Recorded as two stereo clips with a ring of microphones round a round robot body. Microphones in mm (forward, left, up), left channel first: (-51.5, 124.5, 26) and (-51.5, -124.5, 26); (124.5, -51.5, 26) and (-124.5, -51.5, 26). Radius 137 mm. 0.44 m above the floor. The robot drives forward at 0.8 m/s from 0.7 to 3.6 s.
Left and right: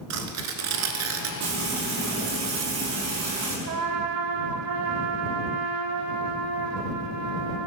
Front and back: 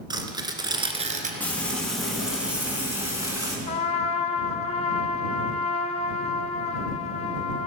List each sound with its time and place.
0.1 s tearing paper: 105° right, 1.6 m; by 1.3 s 120° right, 1.8 m
1.4 s frying: 85° right, 4.5 m; by 3.6 s 105° right, 4.5 m
3.7 s a trumpet: 65° right, 0.9 m